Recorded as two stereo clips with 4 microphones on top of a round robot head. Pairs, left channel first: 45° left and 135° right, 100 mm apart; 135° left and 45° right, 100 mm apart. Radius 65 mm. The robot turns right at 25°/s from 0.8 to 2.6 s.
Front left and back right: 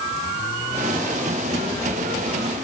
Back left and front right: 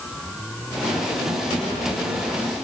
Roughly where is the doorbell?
No doorbell in this recording.